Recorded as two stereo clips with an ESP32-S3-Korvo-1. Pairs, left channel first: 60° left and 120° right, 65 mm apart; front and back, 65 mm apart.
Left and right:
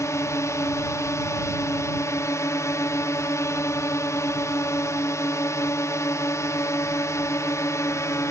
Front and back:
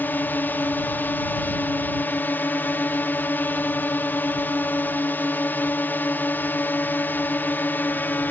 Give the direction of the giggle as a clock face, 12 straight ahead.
No giggle in this recording.